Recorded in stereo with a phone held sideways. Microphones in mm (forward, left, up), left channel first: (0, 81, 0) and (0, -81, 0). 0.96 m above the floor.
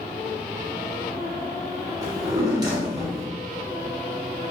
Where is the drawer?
25° right (ahead or behind), 1.0 m.